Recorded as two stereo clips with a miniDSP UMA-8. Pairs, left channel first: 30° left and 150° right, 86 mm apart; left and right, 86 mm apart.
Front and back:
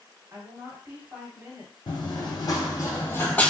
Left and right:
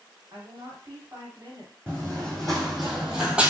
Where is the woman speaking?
105° right, 1.7 m.